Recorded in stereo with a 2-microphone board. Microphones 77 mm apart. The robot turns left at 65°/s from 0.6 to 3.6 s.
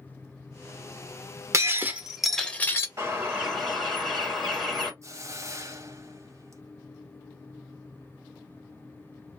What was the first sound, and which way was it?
Breaking glass, 135° right.